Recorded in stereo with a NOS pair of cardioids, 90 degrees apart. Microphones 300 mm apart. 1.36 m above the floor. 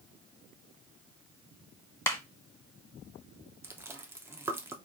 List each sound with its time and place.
2.1 s a clap: 10° left, 1.1 m
3.6 s chewing: 10° right, 0.8 m